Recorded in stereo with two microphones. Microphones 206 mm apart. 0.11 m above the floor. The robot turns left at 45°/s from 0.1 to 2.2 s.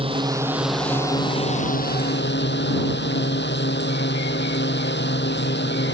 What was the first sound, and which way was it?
A drone, 150° right.